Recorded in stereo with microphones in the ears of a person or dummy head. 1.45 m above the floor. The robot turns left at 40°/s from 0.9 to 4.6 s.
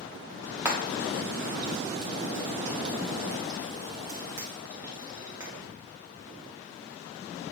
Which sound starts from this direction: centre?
Frying, at 0.7 s.